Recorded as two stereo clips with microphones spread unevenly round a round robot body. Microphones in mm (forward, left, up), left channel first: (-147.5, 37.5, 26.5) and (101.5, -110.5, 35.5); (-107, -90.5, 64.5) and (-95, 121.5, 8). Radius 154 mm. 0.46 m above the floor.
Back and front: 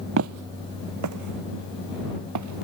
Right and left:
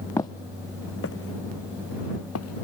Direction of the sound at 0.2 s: 35° right.